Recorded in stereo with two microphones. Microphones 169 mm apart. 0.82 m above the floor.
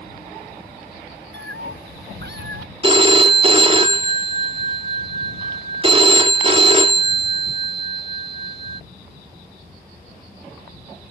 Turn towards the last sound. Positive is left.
turn(degrees=-30)  # may be behind; listen again after turning